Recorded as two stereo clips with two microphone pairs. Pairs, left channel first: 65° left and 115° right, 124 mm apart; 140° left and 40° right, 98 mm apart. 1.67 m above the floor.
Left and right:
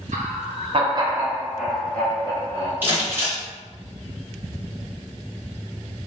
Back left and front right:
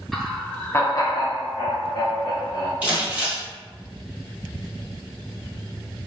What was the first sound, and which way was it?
Laughter, 130° right.